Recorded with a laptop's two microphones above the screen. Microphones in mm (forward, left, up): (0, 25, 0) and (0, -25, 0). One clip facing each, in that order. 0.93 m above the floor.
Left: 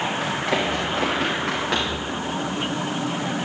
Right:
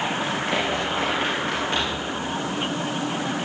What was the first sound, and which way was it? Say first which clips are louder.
Running footsteps: left 1 dB; 55° left (ahead or behind).